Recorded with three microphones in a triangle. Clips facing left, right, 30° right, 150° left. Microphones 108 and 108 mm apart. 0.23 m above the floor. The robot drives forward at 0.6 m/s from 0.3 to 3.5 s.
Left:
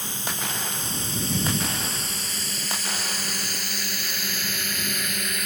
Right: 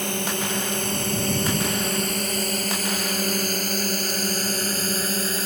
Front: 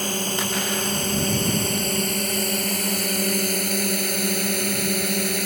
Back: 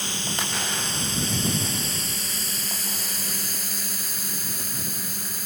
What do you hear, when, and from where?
0.0 s a drone: 70° right; by 5.5 s 35° right